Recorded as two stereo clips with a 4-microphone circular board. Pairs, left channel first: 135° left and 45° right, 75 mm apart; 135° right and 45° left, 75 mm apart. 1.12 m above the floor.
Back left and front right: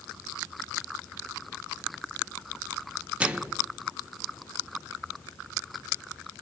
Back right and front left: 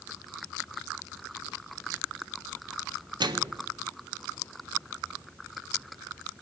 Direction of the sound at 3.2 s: 30° left.